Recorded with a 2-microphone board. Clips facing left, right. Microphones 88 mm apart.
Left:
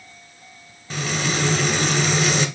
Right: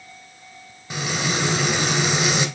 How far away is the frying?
About 1.3 m.